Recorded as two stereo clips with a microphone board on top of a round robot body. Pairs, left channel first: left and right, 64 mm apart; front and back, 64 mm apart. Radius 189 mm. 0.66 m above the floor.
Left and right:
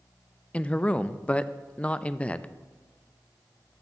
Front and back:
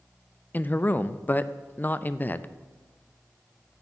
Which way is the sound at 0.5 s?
30° left.